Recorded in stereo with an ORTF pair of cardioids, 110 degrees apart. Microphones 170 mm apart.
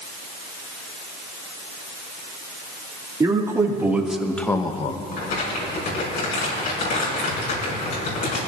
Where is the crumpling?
65° left, 6 m.